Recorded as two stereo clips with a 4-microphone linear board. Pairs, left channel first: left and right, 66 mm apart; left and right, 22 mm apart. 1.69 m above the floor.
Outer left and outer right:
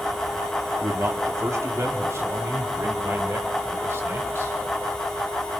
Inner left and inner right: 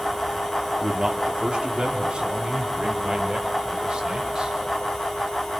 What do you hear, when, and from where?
0.8 s a man speaking: 45° right (ahead or behind), 3.5 m; by 4.6 s 35° right (ahead or behind), 6 m